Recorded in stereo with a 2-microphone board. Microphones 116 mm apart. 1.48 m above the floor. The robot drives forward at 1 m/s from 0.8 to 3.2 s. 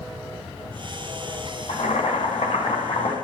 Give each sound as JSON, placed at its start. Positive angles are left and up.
{"t": 1.7, "sound": "boiling", "side_deg": 85, "distance_m": 5.0}